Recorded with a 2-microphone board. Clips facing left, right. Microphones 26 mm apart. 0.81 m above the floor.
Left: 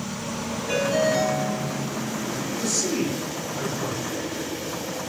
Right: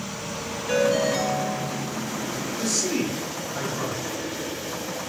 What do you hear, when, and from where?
0.7 s a ringtone: 15° right (ahead or behind), 2.5 m
2.6 s a man speaking: 35° right (ahead or behind), 2.5 m